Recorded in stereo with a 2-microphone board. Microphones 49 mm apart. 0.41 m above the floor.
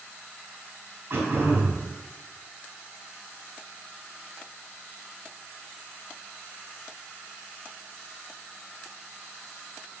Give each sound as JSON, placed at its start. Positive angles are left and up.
{"t": 1.1, "sound": "throat clearing", "side_deg": -55, "distance_m": 2.0}